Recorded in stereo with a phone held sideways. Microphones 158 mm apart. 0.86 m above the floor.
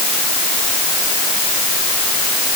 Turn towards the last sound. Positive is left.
No sound to turn to.